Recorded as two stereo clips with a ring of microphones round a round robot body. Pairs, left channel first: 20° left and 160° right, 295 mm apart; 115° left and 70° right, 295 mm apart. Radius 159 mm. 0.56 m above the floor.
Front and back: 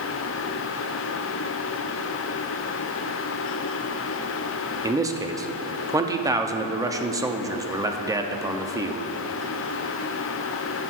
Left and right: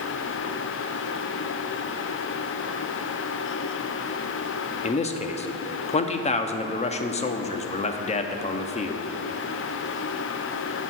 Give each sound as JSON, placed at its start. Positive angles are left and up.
{"t": 4.8, "sound": "a man speaking", "azimuth_deg": 140, "distance_m": 0.7}